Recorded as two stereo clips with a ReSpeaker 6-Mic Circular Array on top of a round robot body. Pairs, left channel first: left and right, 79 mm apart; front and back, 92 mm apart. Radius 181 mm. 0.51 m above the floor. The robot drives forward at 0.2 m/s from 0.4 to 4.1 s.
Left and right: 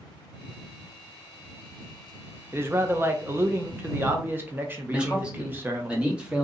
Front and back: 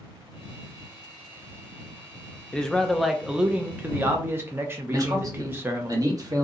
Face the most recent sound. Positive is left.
turn(degrees=-160)